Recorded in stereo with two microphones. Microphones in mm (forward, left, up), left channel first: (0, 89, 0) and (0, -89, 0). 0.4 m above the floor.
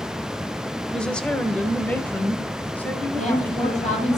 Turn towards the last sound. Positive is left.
turn(degrees=40)  # may be behind; listen again after turning